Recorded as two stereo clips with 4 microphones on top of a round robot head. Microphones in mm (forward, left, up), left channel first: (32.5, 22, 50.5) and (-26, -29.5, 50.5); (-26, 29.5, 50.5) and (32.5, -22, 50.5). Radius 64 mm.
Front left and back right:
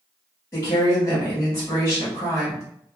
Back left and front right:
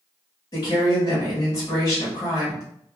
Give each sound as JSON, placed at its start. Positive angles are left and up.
{"t": 0.5, "sound": "a woman speaking", "azimuth_deg": 105, "distance_m": 1.2}